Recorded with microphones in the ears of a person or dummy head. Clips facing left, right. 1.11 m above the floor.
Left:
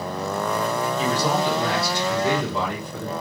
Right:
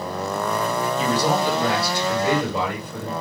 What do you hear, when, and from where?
1.0 s a man speaking: 60° right (ahead or behind), 1.9 m